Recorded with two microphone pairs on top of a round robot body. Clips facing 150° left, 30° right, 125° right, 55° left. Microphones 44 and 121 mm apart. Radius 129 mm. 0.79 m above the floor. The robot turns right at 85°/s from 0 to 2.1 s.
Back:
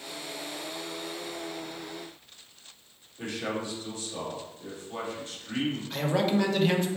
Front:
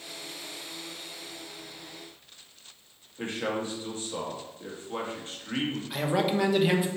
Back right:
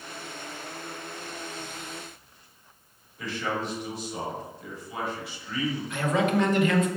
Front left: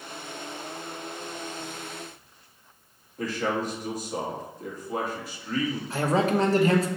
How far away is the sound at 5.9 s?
About 0.8 m.